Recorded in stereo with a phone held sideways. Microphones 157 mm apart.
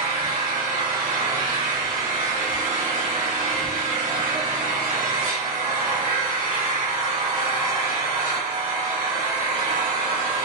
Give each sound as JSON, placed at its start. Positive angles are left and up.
{"t": 0.0, "sound": "an engine running", "side_deg": -60, "distance_m": 1.4}